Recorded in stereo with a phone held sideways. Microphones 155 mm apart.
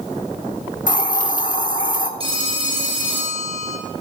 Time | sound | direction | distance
0.9 | a hiss | 55° left (ahead or behind) | 1.0 m
2.2 | a phone ringing | 35° right (ahead or behind) | 2.5 m